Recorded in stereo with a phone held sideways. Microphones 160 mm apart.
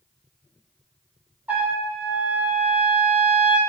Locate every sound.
1.5 s a trumpet: 10° right (ahead or behind), 4.5 m